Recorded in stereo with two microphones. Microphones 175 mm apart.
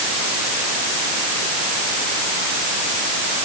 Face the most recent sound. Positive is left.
No sound to turn to.